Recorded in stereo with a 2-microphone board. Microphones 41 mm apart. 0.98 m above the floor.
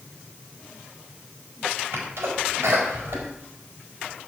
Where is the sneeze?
85° right, 4.5 m.